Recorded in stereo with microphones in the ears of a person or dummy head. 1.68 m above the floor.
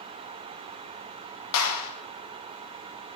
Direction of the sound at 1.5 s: 85° left.